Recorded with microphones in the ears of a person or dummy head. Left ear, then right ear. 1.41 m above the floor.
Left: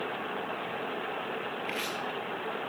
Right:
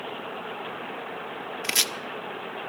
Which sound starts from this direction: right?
Chopping, at 1.6 s.